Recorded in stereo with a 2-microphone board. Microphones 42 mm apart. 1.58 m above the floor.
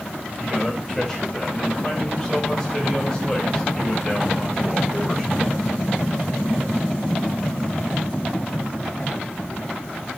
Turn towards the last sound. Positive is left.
turn(degrees=0)  # may be behind; listen again after turning